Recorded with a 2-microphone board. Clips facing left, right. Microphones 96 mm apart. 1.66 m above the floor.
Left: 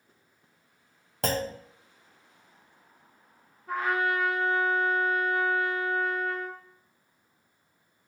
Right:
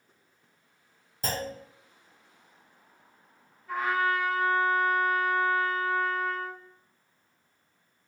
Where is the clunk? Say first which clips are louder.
Left 4 dB; 75° left (ahead or behind), 0.5 m.